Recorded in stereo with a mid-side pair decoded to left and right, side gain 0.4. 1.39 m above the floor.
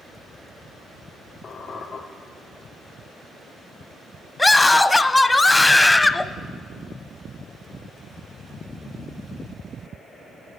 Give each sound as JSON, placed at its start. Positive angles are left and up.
{"t": 1.4, "sound": "a squeak", "azimuth_deg": 55, "distance_m": 2.5}
{"t": 4.4, "sound": "a scream", "azimuth_deg": 20, "distance_m": 0.8}